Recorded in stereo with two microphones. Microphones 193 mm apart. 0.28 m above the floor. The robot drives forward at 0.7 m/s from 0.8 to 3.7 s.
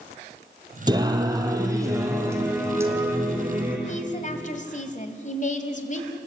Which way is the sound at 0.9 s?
20° right (ahead or behind).